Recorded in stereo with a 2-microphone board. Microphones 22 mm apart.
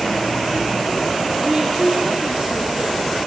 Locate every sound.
1.4 s a woman speaking: 45° right (ahead or behind), 7 m